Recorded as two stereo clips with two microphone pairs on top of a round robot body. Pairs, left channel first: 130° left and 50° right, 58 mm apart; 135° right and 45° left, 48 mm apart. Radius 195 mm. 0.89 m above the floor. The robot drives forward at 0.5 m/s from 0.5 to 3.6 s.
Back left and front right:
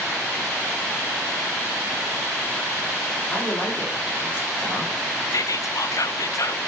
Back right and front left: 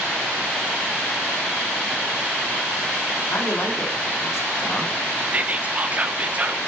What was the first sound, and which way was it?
A man speaking, 170° right.